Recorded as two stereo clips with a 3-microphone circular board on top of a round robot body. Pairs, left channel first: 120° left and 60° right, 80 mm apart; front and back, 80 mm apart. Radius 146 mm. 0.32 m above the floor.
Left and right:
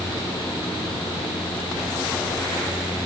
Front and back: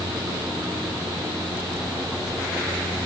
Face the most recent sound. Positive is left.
No sound to turn to.